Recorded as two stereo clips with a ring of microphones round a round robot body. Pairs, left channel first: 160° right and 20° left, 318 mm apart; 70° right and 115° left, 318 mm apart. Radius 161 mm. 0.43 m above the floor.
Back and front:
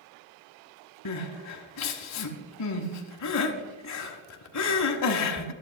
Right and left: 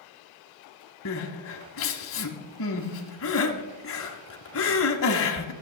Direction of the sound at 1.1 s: 120° right.